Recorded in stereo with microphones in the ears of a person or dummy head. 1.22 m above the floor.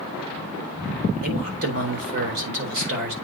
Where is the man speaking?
55° right (ahead or behind), 3 m.